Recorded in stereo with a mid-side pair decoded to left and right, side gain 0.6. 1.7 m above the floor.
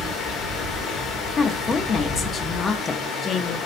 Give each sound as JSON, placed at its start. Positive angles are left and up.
{"t": 0.0, "sound": "running water", "azimuth_deg": 40, "distance_m": 1.8}
{"t": 1.4, "sound": "a woman speaking", "azimuth_deg": 30, "distance_m": 0.7}